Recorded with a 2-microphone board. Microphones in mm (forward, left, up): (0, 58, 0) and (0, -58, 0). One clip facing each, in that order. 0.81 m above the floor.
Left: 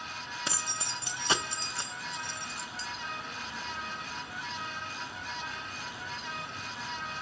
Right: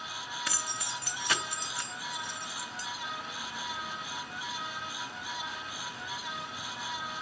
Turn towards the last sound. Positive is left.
turn(degrees=30)  # may be behind; listen again after turning